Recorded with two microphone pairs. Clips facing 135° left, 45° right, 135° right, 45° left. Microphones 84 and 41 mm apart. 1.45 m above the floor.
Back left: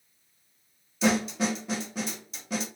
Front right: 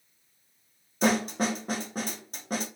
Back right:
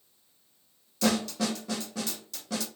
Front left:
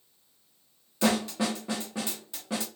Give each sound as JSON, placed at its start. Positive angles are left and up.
{"t": 1.0, "sound": "a snare drum", "azimuth_deg": -15, "distance_m": 0.6}